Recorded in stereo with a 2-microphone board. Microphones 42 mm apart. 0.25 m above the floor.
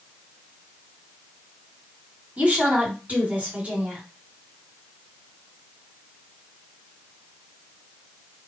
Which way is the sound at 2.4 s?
35° right (ahead or behind).